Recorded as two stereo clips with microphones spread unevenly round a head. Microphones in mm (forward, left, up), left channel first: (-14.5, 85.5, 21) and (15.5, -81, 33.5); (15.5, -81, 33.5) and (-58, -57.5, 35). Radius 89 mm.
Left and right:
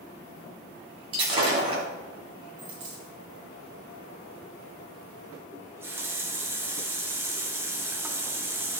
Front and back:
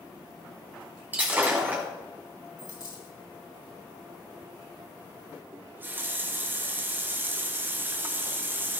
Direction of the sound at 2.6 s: 45° right.